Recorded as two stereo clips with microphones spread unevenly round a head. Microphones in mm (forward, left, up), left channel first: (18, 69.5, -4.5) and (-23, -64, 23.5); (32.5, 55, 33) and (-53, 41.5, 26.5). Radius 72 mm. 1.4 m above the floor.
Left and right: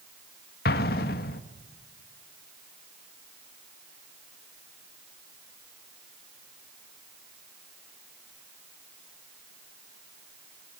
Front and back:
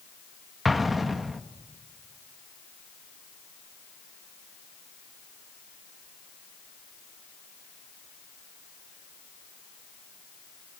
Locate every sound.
0.7 s an explosion: 100° left, 1.3 m